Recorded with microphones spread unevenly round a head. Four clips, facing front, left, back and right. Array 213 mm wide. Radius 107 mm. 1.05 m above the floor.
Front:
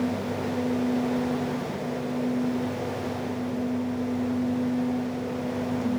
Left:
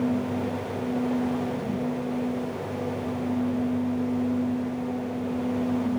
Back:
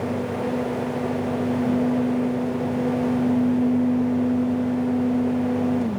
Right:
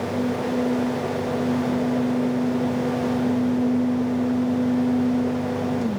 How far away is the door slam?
I don't hear a door slam.